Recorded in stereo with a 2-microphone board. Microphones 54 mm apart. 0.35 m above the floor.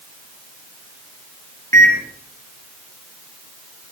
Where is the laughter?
No laughter in this recording.